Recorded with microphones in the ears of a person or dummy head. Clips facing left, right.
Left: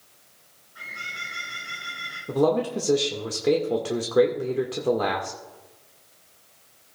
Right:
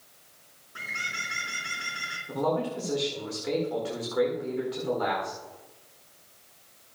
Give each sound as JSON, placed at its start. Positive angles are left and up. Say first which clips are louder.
{"t": 0.8, "sound": "a bird", "louder": "right 2 dB", "side_deg": -75, "distance_m": 3.5}
{"t": 2.3, "sound": "a man speaking", "louder": "left 6 dB", "side_deg": 65, "distance_m": 1.5}